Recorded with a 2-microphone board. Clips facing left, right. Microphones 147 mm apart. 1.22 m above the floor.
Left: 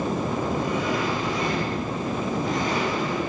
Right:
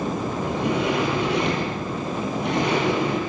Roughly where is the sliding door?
Right.